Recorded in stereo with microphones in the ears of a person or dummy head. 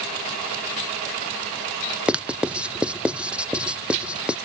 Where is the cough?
I don't hear a cough.